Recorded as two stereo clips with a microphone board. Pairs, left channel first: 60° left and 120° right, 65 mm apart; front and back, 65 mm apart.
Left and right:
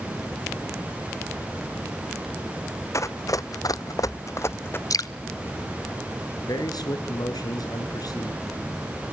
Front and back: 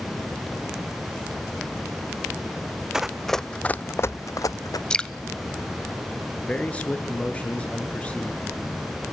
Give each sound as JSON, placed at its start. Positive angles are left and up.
{"t": 2.9, "sound": "running footsteps", "azimuth_deg": 100, "distance_m": 0.9}
{"t": 4.9, "sound": "dripping", "azimuth_deg": 75, "distance_m": 0.8}
{"t": 6.4, "sound": "a man speaking", "azimuth_deg": 70, "distance_m": 4.5}